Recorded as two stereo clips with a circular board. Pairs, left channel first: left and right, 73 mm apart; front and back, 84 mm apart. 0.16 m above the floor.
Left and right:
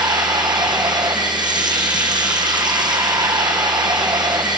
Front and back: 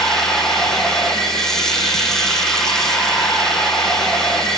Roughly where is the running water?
Right.